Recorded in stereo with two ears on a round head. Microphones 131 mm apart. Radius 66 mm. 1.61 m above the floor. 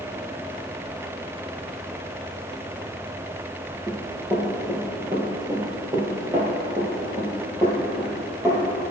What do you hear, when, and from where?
3.9 s running footsteps: 20° right (ahead or behind), 1.9 m